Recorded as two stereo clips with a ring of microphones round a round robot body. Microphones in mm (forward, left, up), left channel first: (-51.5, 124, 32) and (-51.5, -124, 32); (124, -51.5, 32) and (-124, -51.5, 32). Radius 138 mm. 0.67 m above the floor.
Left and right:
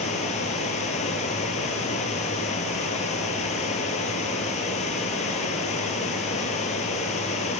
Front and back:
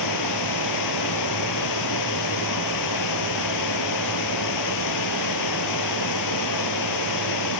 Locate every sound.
0.0 s running water: 25° left, 2 m